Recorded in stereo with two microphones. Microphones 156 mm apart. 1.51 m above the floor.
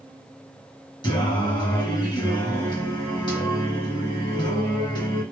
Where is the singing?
30° left (ahead or behind), 1.7 m.